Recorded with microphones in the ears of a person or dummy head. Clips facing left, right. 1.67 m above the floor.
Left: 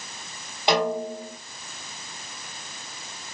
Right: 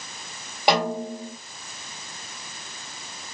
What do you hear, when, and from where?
0.7 s a snare drum: 15° right (ahead or behind), 1.4 m